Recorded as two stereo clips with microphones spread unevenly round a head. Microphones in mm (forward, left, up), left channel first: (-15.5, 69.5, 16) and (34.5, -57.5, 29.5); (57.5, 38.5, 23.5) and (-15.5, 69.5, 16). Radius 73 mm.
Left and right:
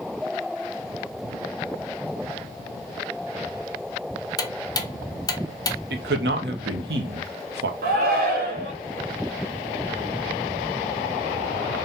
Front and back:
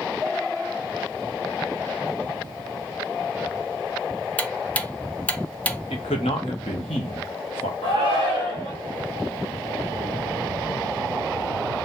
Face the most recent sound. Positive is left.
turn(degrees=-55)